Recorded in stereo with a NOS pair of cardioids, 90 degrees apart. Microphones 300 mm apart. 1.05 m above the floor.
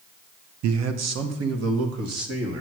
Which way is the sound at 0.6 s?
65° right.